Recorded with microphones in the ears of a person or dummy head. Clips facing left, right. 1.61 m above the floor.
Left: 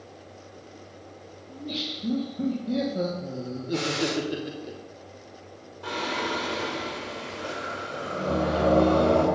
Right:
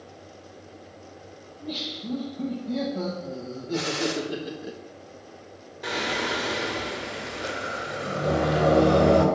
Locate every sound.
1.5 s laughter: 35° left (ahead or behind), 2.5 m; by 4.7 s 10° right (ahead or behind), 0.8 m
3.7 s a gunshot: 45° left (ahead or behind), 3 m
5.8 s singing: 25° right (ahead or behind), 2.5 m